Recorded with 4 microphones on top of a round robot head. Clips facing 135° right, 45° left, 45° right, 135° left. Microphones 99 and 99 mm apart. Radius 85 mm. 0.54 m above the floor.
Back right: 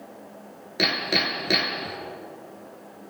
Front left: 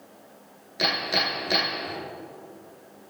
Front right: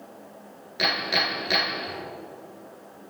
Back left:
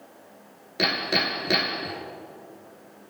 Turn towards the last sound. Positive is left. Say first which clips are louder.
# back right 1 dB, back left 1 dB
turn(degrees=-175)